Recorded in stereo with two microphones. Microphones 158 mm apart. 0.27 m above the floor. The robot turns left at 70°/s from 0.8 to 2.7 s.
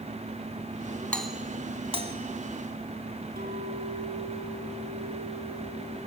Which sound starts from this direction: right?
A clink, at 3.4 s.